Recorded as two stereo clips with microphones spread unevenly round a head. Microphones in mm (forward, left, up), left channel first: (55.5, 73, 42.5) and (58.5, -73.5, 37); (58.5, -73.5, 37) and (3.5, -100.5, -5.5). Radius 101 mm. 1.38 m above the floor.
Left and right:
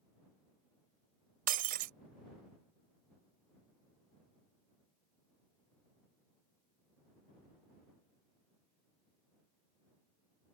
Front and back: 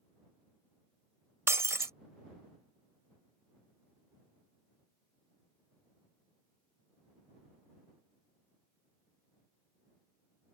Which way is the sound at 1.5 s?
85° right.